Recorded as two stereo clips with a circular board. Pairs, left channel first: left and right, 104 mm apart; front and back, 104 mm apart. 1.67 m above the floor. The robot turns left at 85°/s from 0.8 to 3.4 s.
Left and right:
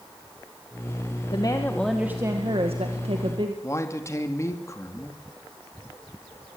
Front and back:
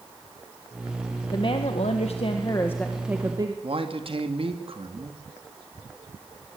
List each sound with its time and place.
1.3 s a woman speaking: 50° left, 1.9 m; by 3.5 s 130° right, 1.9 m
3.6 s a man speaking: 150° left, 2.5 m